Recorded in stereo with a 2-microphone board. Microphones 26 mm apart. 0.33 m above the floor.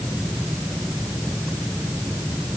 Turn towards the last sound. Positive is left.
No sound to turn to.